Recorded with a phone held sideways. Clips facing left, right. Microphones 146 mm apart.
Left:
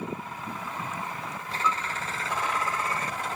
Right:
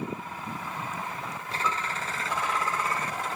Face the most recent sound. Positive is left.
turn(degrees=-40)  # may be behind; listen again after turning